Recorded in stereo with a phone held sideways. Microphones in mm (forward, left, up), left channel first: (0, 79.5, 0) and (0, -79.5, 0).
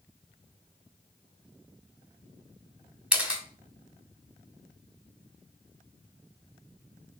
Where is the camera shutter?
5° right (ahead or behind), 1.2 m.